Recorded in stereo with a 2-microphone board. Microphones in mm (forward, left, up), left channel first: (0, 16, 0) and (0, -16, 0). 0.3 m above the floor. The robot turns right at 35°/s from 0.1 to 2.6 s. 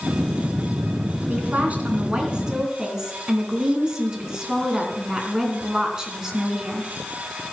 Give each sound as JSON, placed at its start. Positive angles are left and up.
{"t": 1.3, "sound": "a woman speaking", "azimuth_deg": -65, "distance_m": 3.0}